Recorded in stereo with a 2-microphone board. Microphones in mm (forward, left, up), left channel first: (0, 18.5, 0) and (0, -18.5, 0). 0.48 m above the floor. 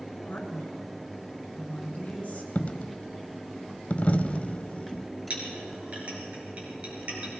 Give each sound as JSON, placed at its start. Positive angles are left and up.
{"t": 0.2, "sound": "a man speaking", "side_deg": 45, "distance_m": 6.0}
{"t": 2.5, "sound": "a dropped coin", "side_deg": 40, "distance_m": 0.5}
{"t": 5.3, "sound": "a clink", "side_deg": -35, "distance_m": 5.0}